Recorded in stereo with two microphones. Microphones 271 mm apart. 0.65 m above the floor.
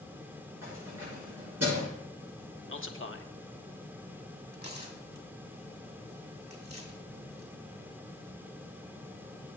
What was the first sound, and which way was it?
Keys jangling, 65° right (ahead or behind).